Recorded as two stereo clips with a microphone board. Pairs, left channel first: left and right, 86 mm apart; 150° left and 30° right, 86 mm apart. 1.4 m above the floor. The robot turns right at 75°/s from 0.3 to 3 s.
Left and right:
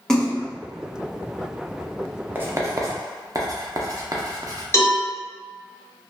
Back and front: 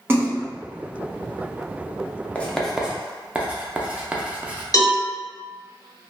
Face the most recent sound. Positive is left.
turn(degrees=135)